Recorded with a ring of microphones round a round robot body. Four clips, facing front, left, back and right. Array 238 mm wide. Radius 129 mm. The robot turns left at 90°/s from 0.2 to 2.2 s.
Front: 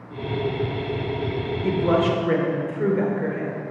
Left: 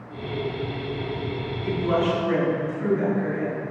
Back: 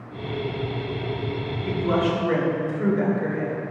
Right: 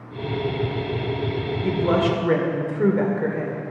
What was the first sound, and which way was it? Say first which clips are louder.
A woman speaking: right 2 dB, front 3 dB; 25° right.